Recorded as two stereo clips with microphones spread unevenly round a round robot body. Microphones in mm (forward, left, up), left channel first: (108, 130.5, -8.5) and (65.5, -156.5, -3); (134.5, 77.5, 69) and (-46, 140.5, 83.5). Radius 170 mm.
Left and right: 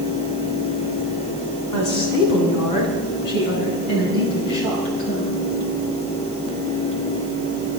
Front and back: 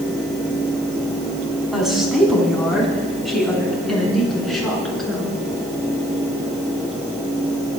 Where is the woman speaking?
70° left, 4.5 m.